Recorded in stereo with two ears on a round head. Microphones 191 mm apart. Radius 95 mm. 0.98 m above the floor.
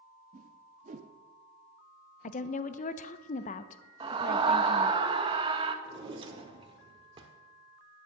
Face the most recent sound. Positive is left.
turn(degrees=-25)  # may be behind; listen again after turning